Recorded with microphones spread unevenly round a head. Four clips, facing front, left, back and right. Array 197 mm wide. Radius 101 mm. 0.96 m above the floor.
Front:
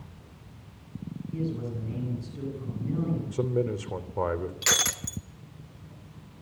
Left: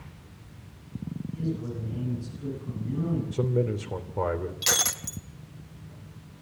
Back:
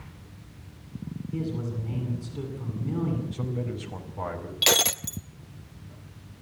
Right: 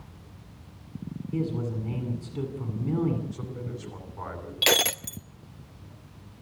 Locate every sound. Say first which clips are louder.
1.3 s a man speaking: right 4 dB, even; 95° right, 8 m
3.3 s a man speaking: left 11 dB, front 5 dB; 45° left, 3 m
4.6 s breaking glass: right 6 dB, back 5 dB; 115° right, 0.5 m